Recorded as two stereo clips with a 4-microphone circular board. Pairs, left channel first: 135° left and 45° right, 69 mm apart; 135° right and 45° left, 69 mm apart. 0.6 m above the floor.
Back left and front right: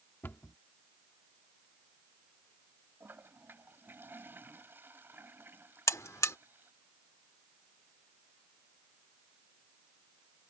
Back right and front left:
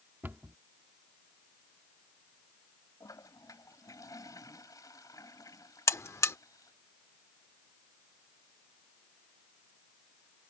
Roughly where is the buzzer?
Behind.